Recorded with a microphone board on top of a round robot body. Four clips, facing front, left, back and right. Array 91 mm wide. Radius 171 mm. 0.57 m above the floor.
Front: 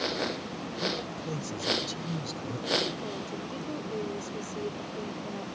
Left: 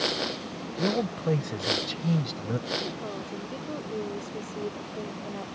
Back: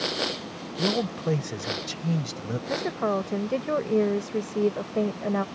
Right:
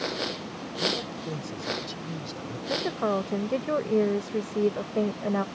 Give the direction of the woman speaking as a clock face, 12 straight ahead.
5 o'clock.